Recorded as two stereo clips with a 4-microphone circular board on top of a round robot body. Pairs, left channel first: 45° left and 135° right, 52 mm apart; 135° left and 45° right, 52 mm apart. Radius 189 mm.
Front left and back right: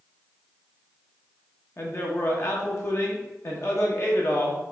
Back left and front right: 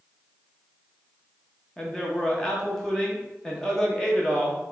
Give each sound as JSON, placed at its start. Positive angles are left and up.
{"t": 1.8, "sound": "a man speaking", "azimuth_deg": 60, "distance_m": 1.1}